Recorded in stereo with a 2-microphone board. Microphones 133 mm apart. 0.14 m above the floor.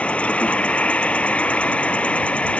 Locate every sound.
0.0 s an insect: 10° left (ahead or behind)